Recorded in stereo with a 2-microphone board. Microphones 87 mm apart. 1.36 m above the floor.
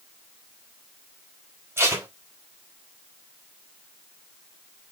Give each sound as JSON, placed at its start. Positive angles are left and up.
{"t": 1.8, "sound": "tape being pulled", "side_deg": -30, "distance_m": 5.5}